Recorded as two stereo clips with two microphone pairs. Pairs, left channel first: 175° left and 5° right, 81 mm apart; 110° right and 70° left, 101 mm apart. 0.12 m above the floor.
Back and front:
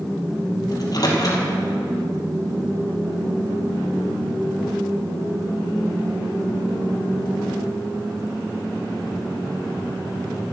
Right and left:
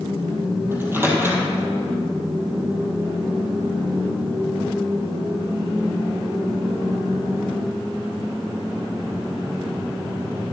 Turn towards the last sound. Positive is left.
turn(degrees=140)